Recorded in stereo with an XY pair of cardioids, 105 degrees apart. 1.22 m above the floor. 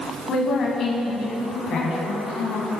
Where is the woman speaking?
50° left, 9 m; by 2.7 s 65° left, 10.5 m.